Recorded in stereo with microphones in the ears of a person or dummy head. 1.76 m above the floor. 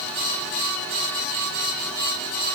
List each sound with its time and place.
Only background noise.